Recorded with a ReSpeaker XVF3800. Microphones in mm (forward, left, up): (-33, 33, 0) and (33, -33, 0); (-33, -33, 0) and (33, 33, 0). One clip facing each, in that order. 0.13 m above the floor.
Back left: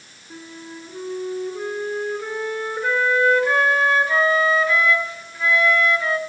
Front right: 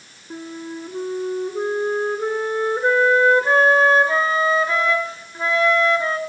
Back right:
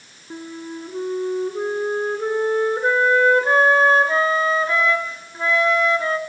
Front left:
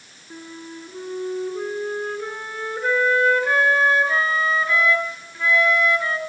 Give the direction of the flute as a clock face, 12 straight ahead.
3 o'clock.